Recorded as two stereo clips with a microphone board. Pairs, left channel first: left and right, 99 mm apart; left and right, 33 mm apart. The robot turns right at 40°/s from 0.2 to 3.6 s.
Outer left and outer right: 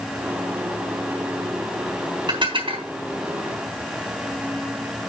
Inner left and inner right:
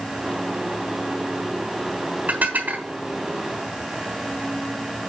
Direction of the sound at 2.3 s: 50° right (ahead or behind).